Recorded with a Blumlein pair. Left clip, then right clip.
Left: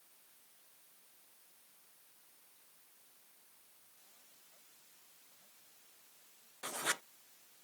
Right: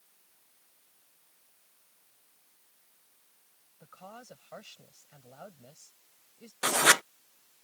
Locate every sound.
3.8 s a woman speaking: 45° right
6.6 s writing: 55° right